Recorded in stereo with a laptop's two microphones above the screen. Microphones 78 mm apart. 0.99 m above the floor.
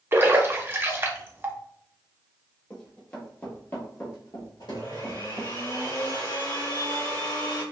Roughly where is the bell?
No bell in this recording.